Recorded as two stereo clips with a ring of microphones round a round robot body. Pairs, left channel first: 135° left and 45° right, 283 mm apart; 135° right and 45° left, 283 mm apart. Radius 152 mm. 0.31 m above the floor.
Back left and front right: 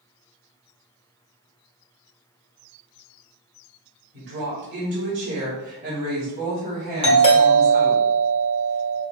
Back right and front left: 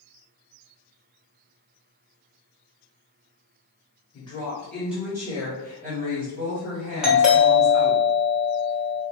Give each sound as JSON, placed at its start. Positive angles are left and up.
{"t": 4.1, "sound": "a woman speaking", "azimuth_deg": -75, "distance_m": 1.3}
{"t": 7.0, "sound": "a doorbell", "azimuth_deg": 125, "distance_m": 1.5}